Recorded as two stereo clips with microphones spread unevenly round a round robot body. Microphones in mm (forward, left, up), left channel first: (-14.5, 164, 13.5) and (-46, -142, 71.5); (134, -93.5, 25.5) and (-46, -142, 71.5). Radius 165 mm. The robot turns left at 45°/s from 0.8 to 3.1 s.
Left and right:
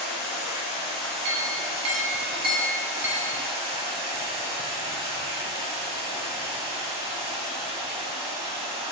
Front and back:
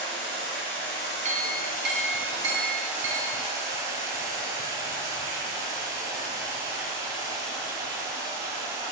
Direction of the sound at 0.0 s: 15° left.